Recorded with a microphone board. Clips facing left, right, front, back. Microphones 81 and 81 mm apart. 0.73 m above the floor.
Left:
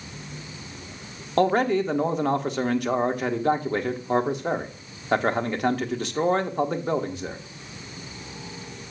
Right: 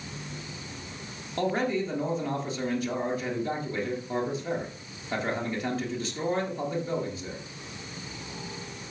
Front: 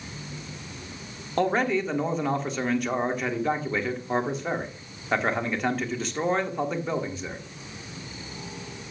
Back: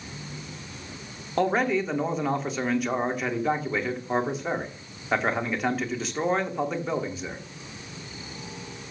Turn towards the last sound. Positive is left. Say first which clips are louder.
# left 7 dB, even
turn(degrees=90)